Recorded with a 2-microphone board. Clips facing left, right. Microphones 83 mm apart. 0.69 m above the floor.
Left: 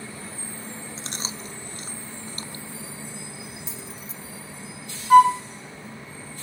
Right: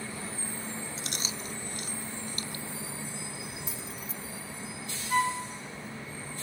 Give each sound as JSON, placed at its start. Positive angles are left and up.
{"t": 1.0, "sound": "chewing", "side_deg": 30, "distance_m": 0.6}
{"t": 3.7, "sound": "keys jangling", "side_deg": 30, "distance_m": 1.2}
{"t": 5.1, "sound": "a flute", "side_deg": 70, "distance_m": 0.6}